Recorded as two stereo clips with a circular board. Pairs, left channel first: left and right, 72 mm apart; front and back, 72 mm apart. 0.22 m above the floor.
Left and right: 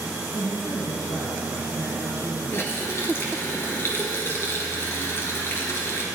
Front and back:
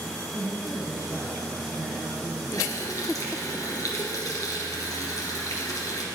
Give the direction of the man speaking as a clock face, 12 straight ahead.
10 o'clock.